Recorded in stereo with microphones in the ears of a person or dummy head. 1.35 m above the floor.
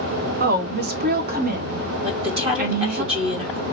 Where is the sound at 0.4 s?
45° right (ahead or behind), 0.7 m.